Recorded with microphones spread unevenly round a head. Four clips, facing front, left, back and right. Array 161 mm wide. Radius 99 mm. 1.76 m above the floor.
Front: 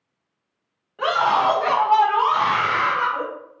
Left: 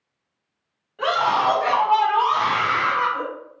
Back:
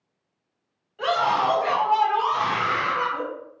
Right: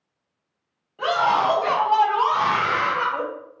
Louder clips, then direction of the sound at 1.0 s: Even, front 3 dB; 15° left.